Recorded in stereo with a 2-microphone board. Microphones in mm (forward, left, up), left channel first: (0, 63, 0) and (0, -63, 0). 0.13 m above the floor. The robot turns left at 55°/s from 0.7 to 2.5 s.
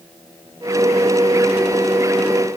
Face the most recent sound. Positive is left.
No sound to turn to.